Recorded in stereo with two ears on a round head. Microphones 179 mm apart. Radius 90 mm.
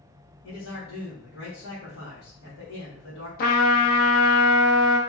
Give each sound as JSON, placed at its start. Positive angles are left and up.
{"t": 0.4, "sound": "a man speaking", "side_deg": 75, "distance_m": 1.0}
{"t": 3.4, "sound": "a trumpet", "side_deg": 45, "distance_m": 0.6}